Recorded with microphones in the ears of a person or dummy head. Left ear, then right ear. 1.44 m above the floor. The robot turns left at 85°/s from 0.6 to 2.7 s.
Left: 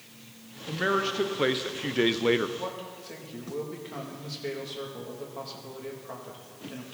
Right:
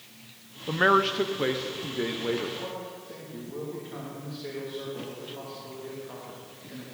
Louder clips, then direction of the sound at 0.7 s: Right 5 dB; 135° right.